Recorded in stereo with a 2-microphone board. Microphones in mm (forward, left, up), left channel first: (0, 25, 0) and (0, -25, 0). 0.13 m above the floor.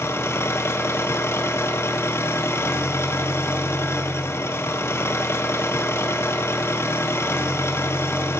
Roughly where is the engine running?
Left.